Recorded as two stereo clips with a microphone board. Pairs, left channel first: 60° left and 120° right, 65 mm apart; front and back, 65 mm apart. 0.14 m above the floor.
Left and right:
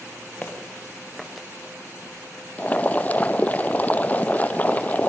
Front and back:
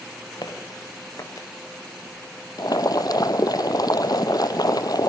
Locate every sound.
0.4 s footsteps: 10° right, 3.5 m; by 1.5 s 35° right, 3.5 m
2.6 s boiling: 5° right, 0.8 m